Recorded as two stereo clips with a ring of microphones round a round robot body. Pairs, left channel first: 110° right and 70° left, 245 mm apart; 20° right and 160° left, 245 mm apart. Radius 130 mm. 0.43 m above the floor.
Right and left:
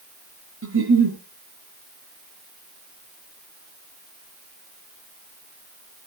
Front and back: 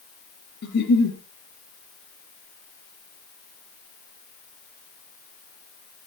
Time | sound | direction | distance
0.6 | a giggle | 30° left | 4.5 m